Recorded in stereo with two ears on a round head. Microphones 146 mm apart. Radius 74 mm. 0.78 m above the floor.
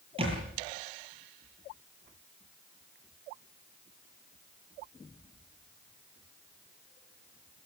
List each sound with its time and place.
0.2 s a thud: 35° right (ahead or behind), 9 m